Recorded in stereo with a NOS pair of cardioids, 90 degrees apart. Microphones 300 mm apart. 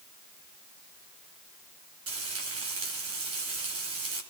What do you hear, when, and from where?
2.1 s frying: 50° right, 9 m